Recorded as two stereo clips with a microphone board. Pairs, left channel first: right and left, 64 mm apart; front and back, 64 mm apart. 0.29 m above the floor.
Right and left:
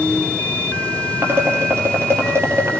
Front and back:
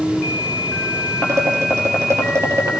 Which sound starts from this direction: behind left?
Dishes clattering, at 1.2 s.